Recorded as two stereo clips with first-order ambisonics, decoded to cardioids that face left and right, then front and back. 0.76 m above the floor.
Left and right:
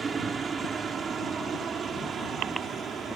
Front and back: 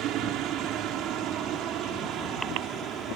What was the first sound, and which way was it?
A helicopter, 160° right.